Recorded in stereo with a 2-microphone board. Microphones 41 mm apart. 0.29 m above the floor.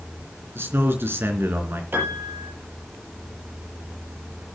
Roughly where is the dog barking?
No dog barking in this recording.